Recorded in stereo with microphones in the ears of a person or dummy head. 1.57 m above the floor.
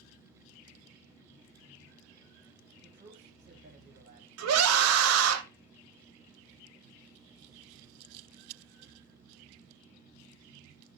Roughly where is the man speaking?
Right.